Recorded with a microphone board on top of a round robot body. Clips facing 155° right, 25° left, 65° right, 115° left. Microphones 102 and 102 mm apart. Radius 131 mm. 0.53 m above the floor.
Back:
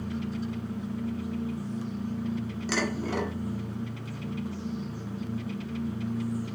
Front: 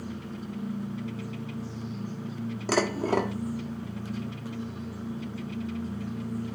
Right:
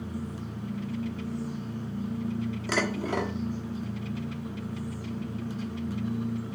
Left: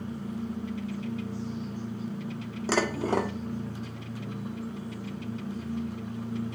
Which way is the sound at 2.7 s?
60° left.